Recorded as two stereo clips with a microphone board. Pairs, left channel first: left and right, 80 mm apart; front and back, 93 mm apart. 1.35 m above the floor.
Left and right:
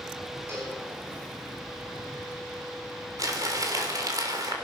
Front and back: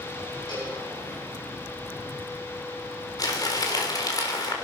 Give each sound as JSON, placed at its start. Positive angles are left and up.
{"t": 0.5, "sound": "a cowbell", "azimuth_deg": -35, "distance_m": 9.0}
{"t": 3.2, "sound": "crumpling", "azimuth_deg": -45, "distance_m": 3.5}